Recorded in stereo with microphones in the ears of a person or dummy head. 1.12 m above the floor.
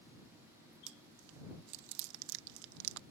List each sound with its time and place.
0.9 s chewing: 70° right (ahead or behind)